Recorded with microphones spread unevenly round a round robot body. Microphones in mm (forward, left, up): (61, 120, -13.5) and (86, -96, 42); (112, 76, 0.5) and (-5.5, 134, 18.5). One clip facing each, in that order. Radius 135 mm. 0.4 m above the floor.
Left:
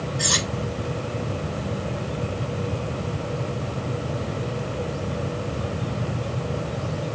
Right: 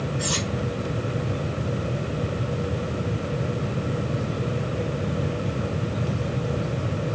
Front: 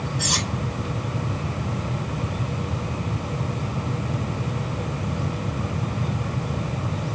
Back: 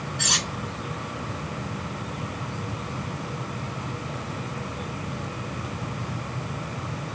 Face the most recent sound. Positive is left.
turn(degrees=135)